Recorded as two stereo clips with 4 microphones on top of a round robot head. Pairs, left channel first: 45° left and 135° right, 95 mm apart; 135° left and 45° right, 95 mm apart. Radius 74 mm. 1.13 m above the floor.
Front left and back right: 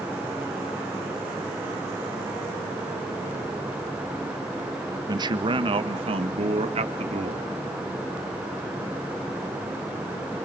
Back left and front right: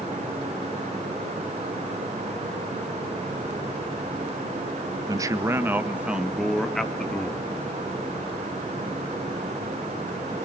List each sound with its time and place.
5.1 s a man speaking: 90° right, 1.5 m; by 7.5 s 145° right, 2.5 m